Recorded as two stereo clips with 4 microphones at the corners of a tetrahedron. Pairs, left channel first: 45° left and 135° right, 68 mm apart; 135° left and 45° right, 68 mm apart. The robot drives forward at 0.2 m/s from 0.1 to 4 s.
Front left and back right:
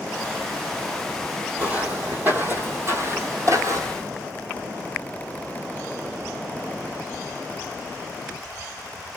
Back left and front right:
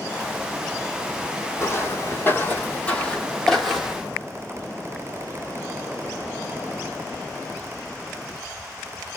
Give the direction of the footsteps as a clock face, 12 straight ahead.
7 o'clock.